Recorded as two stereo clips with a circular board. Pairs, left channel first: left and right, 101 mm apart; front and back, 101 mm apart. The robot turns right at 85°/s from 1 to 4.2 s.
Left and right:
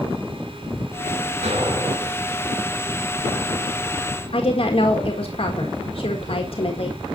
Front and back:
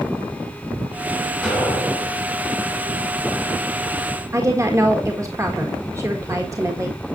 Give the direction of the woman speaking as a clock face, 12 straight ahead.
8 o'clock.